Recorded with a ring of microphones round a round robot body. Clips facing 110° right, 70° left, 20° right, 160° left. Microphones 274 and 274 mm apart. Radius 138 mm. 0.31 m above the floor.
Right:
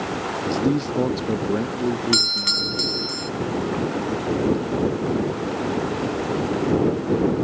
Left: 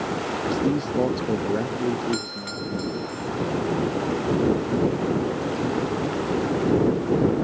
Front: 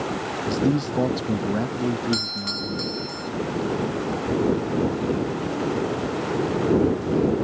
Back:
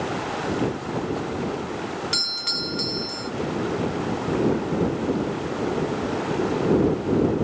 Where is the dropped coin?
I don't hear a dropped coin.